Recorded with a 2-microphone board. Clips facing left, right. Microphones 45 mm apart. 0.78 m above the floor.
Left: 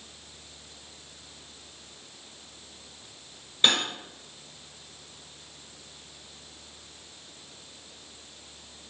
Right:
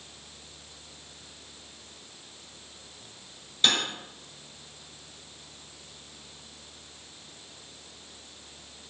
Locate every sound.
3.6 s cutlery clinking: 25° left (ahead or behind), 1.2 m